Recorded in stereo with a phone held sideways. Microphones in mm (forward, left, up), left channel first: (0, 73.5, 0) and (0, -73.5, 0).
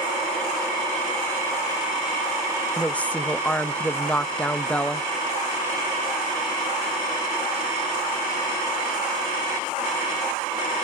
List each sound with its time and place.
2.8 s a woman speaking: 10° left (ahead or behind), 0.7 m